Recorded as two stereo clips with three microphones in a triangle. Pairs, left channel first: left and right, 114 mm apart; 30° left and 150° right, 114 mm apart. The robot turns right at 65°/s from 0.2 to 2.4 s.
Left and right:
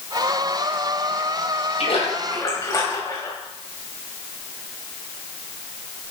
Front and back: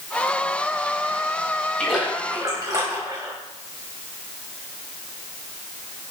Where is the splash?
115° left, 5.5 m; by 3.3 s 150° left, 5.5 m.